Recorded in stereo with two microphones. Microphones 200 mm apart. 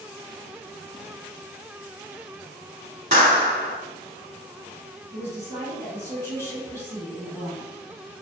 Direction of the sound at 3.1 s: 40° right (ahead or behind).